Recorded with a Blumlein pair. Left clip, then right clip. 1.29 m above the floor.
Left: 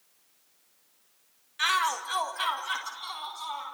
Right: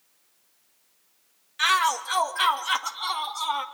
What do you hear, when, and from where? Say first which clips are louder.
1.6 s a shout: right 4 dB; 10° right, 1.9 m; by 3.6 s 30° right, 3 m